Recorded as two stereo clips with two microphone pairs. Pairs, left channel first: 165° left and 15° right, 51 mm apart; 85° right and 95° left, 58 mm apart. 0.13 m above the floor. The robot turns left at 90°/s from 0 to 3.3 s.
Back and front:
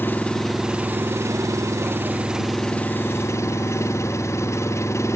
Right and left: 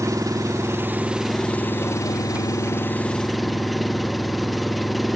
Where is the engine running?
120° left; by 5.2 s 175° right.